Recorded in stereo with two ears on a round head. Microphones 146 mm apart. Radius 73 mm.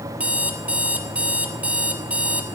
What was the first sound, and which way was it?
An alarm clock, 5° right (ahead or behind).